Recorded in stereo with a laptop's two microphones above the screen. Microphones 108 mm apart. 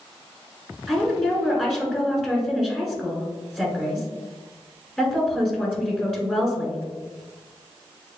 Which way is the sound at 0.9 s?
5° left (ahead or behind).